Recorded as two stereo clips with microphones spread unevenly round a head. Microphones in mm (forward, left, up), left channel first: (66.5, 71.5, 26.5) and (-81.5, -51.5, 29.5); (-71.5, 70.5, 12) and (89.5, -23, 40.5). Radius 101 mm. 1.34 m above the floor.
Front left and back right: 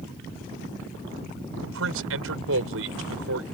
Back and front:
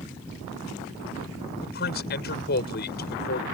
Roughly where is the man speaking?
Behind.